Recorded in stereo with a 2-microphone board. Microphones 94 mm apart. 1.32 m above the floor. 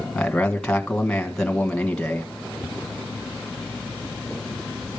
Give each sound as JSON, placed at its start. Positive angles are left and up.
{"t": 0.1, "sound": "a man speaking", "side_deg": 10, "distance_m": 1.4}